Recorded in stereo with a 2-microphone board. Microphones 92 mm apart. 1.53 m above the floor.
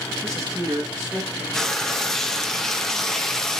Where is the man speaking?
35° right (ahead or behind), 1.3 m.